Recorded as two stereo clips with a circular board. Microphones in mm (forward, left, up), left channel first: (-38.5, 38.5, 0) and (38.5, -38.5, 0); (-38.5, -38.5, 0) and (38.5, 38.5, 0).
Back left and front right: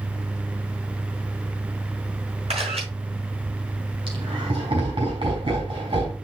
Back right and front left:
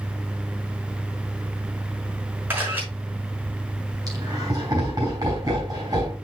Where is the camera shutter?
30° right, 5 m.